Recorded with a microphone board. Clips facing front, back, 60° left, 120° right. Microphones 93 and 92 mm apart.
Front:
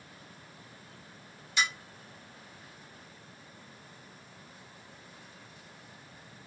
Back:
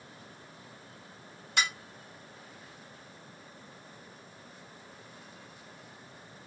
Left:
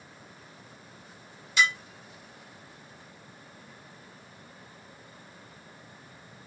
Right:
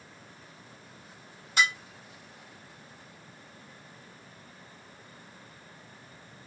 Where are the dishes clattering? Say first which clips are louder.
Even, left 1 dB; 160° right, 1.2 m.